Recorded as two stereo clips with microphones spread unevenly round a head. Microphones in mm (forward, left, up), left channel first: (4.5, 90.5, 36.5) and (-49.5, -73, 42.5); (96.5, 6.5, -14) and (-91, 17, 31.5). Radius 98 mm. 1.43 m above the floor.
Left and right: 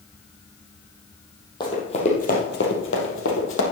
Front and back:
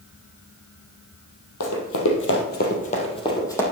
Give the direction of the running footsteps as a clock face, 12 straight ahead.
12 o'clock.